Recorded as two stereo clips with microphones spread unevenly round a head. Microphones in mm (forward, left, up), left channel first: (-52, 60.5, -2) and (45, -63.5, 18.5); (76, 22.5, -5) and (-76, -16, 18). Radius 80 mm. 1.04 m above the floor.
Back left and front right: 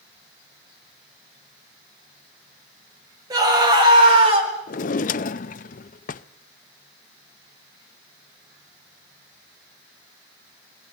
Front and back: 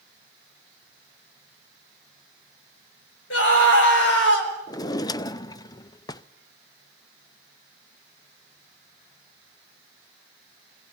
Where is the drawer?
85° left, 0.5 m.